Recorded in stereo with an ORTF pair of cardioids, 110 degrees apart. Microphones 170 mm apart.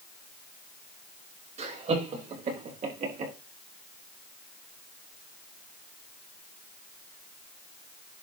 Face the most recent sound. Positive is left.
turn(degrees=-50)